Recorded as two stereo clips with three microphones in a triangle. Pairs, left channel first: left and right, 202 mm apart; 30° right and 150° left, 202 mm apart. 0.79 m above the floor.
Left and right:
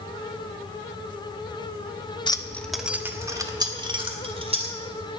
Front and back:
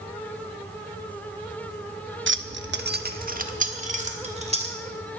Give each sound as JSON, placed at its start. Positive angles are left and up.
{"t": 2.3, "sound": "keys jangling", "azimuth_deg": 155, "distance_m": 0.7}